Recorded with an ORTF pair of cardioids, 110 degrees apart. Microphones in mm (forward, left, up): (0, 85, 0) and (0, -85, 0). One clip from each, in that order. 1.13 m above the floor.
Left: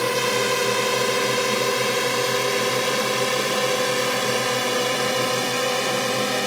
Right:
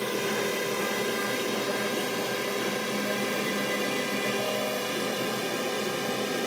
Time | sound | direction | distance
0.0 | a drone | 65° left | ?